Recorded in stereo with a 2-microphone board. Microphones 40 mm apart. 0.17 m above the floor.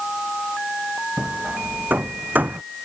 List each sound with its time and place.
1.2 s hammering: 40° right (ahead or behind)